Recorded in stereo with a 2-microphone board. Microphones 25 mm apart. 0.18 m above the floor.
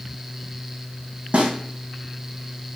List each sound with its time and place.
1.3 s a snare drum: 55° right (ahead or behind), 2 m